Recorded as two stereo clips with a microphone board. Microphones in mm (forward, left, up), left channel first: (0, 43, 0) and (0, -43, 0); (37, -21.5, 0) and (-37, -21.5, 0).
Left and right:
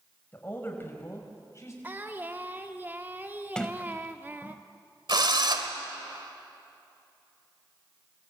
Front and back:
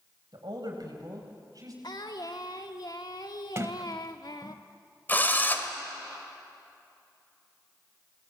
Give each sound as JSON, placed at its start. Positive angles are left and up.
{"t": 0.3, "sound": "a woman speaking", "azimuth_deg": 155, "distance_m": 5.5}
{"t": 1.8, "sound": "singing", "azimuth_deg": -25, "distance_m": 1.5}
{"t": 3.5, "sound": "a sliding door", "azimuth_deg": 165, "distance_m": 1.0}
{"t": 5.1, "sound": "a drill", "azimuth_deg": -65, "distance_m": 2.0}